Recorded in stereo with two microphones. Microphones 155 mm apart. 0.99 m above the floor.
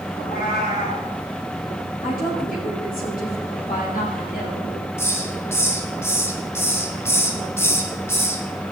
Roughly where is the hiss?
Centre.